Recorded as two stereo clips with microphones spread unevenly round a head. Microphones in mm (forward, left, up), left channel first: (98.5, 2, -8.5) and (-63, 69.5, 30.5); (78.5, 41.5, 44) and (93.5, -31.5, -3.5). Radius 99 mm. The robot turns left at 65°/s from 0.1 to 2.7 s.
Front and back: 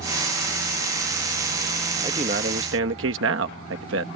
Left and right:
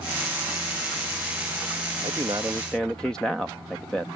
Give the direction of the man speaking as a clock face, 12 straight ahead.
4 o'clock.